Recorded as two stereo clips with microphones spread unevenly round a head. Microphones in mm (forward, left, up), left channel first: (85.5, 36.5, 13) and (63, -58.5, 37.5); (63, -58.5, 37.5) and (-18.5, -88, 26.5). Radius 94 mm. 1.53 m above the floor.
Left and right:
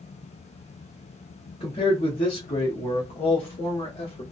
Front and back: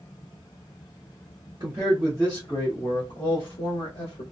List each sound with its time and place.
1.6 s a man speaking: 135° left, 0.7 m; by 4.2 s 55° left, 1.3 m